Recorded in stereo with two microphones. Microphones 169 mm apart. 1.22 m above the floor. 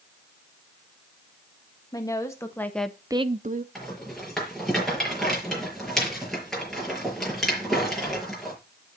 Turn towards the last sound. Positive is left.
turn(degrees=0)  # may be behind; listen again after turning